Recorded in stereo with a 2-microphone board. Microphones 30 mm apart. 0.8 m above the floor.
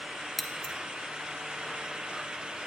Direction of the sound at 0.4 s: 5° left (ahead or behind).